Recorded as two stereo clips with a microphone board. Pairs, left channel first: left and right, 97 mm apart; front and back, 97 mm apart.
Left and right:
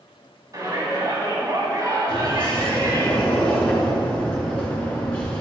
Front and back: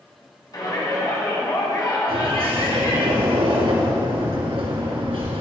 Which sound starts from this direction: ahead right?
A shout, at 0.5 s.